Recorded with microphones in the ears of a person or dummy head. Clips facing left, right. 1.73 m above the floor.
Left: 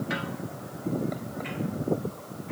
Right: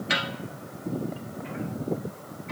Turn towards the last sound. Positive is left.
No sound to turn to.